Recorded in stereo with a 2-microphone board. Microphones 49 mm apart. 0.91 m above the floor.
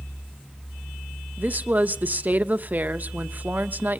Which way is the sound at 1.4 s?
40° right (ahead or behind).